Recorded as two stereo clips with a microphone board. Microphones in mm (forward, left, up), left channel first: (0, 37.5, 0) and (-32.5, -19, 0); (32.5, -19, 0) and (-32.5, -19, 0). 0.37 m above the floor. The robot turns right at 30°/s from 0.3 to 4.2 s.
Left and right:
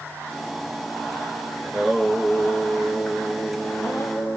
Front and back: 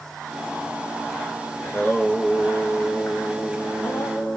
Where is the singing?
40° right, 0.7 m; by 4.4 s 35° left, 0.7 m.